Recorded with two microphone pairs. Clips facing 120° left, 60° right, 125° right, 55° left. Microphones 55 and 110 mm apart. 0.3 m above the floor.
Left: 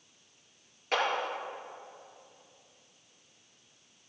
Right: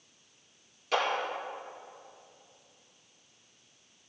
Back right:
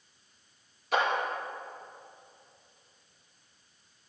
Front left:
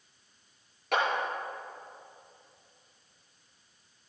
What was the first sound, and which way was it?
A clap, 70° left.